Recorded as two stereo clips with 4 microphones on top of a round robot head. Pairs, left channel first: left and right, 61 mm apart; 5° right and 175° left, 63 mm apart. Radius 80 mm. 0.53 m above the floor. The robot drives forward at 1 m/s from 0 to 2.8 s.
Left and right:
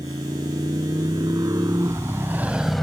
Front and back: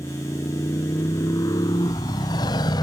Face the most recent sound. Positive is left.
turn(degrees=5)